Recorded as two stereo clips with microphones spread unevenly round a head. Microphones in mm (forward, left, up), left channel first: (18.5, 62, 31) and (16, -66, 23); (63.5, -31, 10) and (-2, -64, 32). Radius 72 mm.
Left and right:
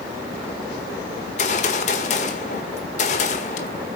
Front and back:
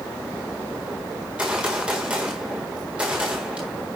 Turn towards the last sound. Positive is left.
turn(degrees=130)